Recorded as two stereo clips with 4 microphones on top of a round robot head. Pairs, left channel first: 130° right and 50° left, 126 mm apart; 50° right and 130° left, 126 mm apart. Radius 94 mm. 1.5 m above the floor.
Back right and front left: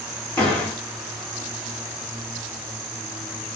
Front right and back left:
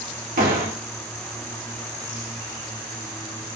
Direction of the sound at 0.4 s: 150° left.